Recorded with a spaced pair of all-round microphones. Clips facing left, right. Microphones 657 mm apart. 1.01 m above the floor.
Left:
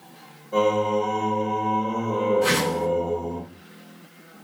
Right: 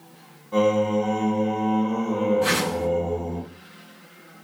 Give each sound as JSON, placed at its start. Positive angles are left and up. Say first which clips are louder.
{"t": 0.5, "sound": "singing", "louder": "right 1 dB", "side_deg": -35, "distance_m": 1.0}
{"t": 2.4, "sound": "a whoosh", "louder": "left 1 dB", "side_deg": 65, "distance_m": 2.5}